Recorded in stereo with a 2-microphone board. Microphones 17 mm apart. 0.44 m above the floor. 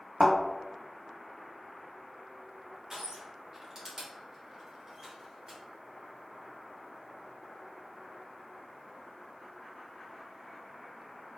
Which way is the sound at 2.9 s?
30° right (ahead or behind).